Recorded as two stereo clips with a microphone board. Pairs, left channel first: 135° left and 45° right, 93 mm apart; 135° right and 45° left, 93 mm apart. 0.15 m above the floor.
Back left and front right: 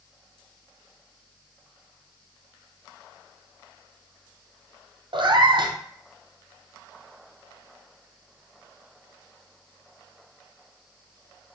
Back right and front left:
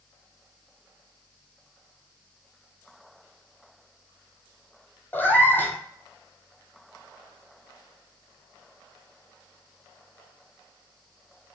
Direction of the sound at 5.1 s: 70° right.